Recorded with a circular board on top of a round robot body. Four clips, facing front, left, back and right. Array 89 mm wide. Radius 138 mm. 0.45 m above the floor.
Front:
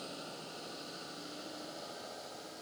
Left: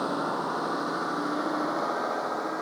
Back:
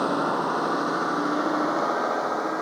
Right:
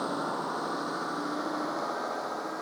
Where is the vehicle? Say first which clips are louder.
Left 3 dB, back 23 dB; 170° left; by 2.6 s 165° left.